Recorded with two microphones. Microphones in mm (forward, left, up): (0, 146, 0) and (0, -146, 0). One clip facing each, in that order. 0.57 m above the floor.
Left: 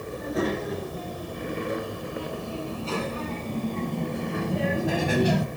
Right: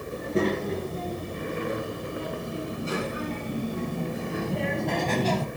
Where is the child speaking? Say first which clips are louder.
Right 2 dB; 30° right (ahead or behind), 7 m; by 5.5 s 15° left (ahead or behind), 2.5 m.